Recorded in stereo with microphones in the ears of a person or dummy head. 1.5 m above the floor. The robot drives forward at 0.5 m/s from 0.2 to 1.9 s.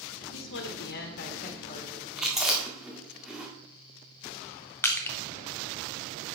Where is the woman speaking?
65° left (ahead or behind), 1.2 m; by 2.1 s 40° left (ahead or behind), 1.7 m.